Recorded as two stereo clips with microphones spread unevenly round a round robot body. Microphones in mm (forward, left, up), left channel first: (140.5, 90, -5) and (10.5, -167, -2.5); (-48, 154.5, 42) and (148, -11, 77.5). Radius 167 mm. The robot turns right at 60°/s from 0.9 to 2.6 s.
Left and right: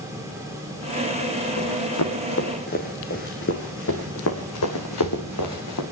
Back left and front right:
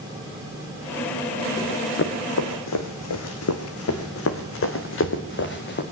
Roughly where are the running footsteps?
Left.